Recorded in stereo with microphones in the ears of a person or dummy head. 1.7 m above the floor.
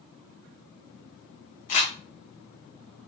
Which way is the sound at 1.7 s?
40° left (ahead or behind).